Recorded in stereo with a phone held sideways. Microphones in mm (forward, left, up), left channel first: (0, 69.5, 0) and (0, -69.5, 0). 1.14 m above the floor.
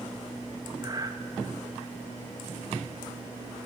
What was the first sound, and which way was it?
Breathing, 30° right (ahead or behind).